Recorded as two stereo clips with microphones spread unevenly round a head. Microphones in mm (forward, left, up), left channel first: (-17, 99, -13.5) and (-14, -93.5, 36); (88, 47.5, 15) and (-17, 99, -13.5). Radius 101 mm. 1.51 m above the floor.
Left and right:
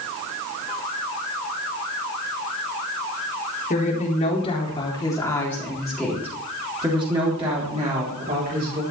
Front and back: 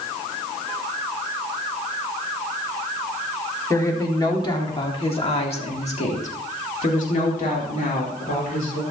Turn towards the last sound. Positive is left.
turn(degrees=-45)